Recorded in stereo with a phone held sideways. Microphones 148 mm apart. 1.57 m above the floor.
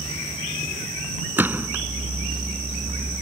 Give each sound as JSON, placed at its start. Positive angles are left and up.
{"t": 1.4, "sound": "a gunshot", "side_deg": -15}